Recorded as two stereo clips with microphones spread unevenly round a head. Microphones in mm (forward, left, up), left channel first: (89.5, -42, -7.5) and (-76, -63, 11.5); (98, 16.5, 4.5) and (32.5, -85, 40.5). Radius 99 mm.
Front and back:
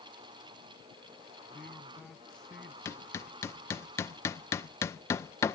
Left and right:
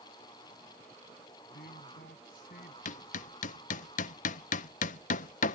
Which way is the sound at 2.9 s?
85° left.